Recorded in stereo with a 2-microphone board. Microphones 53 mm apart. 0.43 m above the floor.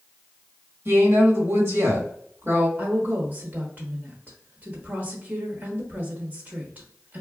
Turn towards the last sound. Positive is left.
turn(degrees=-40)  # may be behind; listen again after turning